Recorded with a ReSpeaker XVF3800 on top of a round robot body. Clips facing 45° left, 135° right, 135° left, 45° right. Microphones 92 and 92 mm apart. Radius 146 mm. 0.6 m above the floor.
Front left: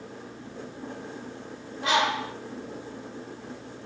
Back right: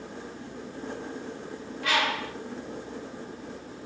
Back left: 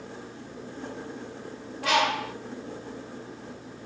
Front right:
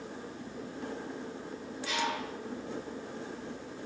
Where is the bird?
115° left, 1.0 m.